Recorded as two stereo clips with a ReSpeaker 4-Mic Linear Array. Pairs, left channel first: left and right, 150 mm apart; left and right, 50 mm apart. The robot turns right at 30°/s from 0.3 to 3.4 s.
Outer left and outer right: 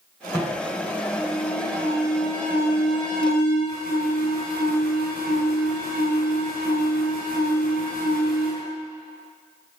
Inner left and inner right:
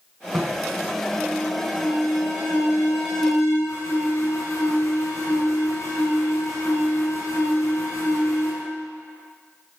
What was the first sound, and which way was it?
An alarm, straight ahead.